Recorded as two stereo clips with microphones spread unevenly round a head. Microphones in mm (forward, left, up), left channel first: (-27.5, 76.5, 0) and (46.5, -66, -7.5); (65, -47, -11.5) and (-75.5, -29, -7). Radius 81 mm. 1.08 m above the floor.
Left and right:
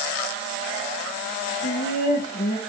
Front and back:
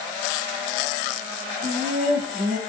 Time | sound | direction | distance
1.6 | laughter | 145° left | 0.7 m